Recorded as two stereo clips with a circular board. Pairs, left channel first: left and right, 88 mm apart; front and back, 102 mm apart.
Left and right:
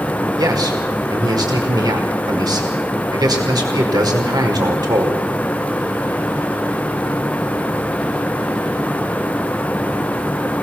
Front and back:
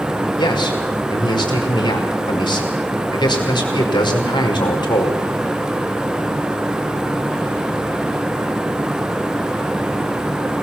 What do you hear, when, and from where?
0.4 s a man speaking: 45° right, 5 m